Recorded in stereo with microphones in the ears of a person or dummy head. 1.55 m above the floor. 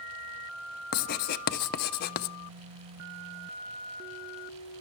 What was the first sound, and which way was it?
Writing, 55° left (ahead or behind).